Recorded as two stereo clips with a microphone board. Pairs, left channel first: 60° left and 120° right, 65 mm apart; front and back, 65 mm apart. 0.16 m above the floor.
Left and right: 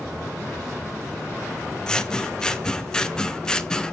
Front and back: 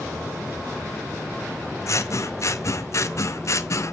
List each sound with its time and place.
1.9 s scissors: 15° right, 0.7 m